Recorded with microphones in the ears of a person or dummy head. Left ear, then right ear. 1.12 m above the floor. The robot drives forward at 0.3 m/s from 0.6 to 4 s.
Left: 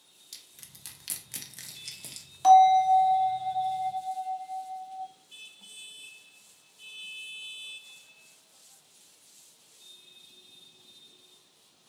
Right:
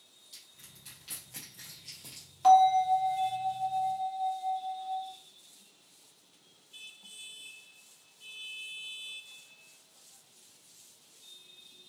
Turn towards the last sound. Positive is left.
turn(degrees=20)  # may be behind; listen again after turning